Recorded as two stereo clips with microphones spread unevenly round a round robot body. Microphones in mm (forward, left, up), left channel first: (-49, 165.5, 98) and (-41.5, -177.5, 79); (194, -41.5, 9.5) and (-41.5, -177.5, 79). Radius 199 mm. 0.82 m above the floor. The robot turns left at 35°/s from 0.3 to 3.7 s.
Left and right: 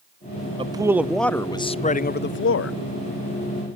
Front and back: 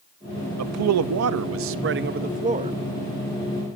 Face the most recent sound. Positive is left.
turn(degrees=95)